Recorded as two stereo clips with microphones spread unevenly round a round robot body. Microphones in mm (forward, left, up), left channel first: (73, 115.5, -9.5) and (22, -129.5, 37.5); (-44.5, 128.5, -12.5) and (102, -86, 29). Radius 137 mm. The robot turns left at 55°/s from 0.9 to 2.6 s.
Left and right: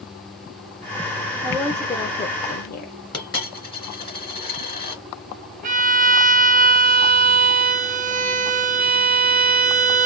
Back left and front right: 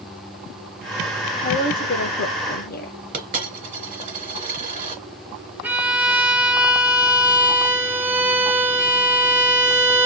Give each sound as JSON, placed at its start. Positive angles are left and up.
{"t": 1.4, "sound": "a woman speaking", "azimuth_deg": 165, "distance_m": 0.9}
{"t": 3.1, "sound": "a dropped coin", "azimuth_deg": 5, "distance_m": 2.0}
{"t": 5.6, "sound": "a violin", "azimuth_deg": -150, "distance_m": 0.9}